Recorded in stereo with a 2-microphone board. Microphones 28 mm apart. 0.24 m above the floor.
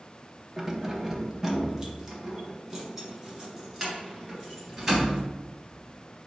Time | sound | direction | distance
0.6 | keys jangling | 10° right (ahead or behind) | 0.7 m